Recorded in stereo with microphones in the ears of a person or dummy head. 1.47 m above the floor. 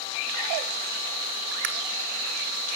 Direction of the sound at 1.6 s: 55° right (ahead or behind).